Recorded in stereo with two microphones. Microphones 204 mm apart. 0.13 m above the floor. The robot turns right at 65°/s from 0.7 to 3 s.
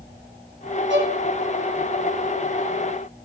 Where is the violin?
65° right (ahead or behind), 3 m; by 1.2 s 70° right (ahead or behind), 3 m.